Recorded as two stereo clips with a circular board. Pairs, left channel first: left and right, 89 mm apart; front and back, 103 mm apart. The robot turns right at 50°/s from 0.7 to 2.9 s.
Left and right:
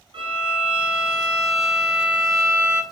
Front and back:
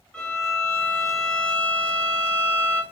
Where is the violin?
80° right, 1.1 m; by 2.8 s 25° left, 1.1 m.